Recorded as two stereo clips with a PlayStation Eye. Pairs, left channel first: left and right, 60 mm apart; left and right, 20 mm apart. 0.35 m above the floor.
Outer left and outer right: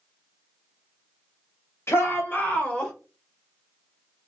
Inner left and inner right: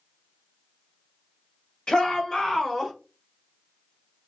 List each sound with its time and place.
1.9 s a shout: 45° left (ahead or behind), 1.2 m; by 2.9 s 10° left (ahead or behind), 0.9 m